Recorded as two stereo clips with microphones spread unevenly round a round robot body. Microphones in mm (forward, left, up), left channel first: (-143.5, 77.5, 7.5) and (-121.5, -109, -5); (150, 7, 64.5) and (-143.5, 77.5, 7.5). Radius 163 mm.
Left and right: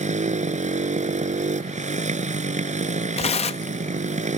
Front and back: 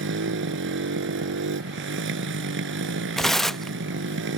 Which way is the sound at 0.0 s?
135° right.